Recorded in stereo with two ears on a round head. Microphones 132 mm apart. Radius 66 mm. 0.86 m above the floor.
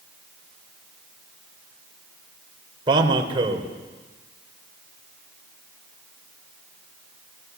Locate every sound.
2.9 s a man speaking: 35° right (ahead or behind), 3.5 m